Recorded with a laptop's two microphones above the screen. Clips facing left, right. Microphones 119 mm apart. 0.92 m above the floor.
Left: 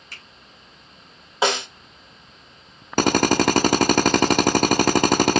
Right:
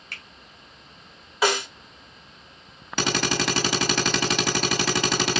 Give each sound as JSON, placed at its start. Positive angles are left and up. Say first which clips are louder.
{"t": 0.1, "sound": "a finger snap", "louder": "right 2 dB", "side_deg": -60, "distance_m": 1.8}
{"t": 1.4, "sound": "a snare drum", "louder": "left 1 dB", "side_deg": 25, "distance_m": 2.5}
{"t": 3.0, "sound": "a drill", "louder": "left 8 dB", "side_deg": 50, "distance_m": 0.9}